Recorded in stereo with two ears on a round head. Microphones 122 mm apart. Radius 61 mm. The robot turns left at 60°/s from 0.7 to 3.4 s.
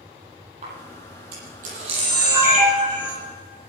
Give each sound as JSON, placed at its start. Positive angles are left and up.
{"t": 0.6, "sound": "a camera shutter", "side_deg": -55, "distance_m": 8.5}